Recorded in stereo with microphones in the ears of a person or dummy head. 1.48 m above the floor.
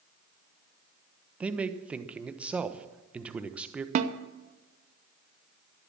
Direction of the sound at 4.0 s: 45° right (ahead or behind).